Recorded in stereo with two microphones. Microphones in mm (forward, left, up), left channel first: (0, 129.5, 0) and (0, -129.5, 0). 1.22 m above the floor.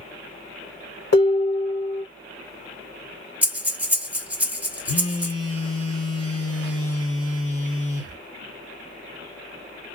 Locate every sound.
1.1 s dishes clattering: 70° left (ahead or behind), 1.3 m
3.4 s breathing: 5° right (ahead or behind), 0.8 m
4.9 s a phone buzzing: 60° left (ahead or behind), 0.9 m